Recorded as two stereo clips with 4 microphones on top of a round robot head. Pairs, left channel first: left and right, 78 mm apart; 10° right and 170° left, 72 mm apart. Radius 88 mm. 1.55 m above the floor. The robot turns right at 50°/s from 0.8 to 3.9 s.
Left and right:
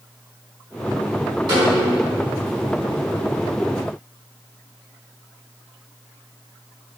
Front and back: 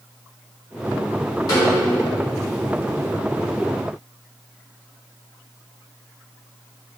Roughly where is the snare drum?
Ahead right.